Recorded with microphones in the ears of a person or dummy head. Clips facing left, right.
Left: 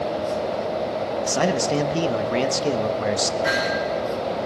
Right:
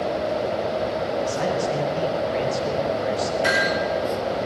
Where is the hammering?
60° right (ahead or behind), 7 m.